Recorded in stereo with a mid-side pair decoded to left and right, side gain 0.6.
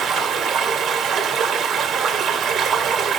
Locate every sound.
0.0 s running water: 40° right, 1.9 m